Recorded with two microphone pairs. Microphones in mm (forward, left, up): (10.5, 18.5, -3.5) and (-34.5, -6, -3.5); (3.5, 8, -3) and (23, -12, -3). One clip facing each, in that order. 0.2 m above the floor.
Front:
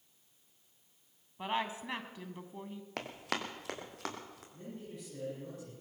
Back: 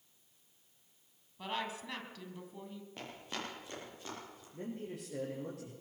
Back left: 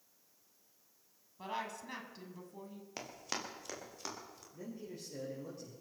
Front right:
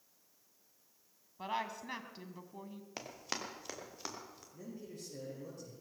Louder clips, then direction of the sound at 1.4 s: Front 4 dB, front right 2 dB; straight ahead.